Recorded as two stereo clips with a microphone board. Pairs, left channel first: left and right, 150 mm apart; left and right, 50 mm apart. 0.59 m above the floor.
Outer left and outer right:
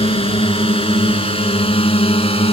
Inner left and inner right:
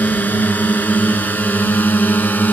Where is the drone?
40° left (ahead or behind).